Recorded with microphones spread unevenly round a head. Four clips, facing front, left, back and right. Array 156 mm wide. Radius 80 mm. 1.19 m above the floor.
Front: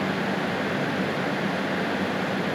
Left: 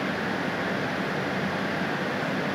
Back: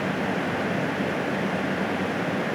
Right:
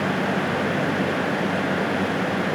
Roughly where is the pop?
I don't hear a pop.